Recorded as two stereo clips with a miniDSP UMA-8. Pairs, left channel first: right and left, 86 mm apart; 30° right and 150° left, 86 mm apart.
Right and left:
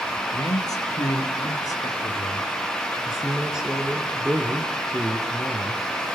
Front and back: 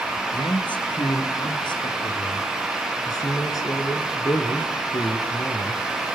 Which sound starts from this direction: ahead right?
A man speaking, at 0.3 s.